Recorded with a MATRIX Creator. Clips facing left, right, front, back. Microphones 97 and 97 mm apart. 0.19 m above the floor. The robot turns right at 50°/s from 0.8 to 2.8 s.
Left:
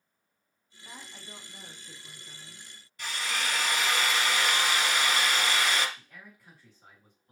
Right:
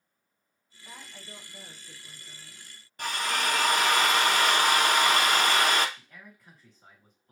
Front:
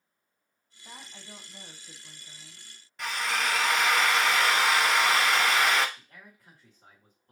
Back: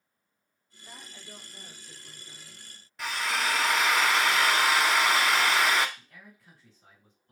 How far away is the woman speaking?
About 1.2 m.